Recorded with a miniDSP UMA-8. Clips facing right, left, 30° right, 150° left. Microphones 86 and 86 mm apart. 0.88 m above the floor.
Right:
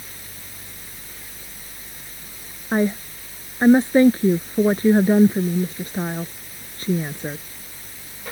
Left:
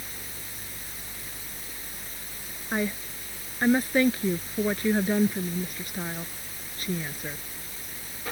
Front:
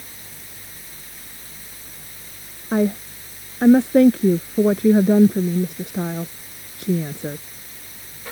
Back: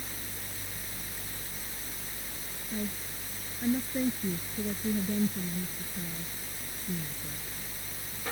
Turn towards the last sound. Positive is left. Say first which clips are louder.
# right 9 dB, front 17 dB
turn(degrees=-25)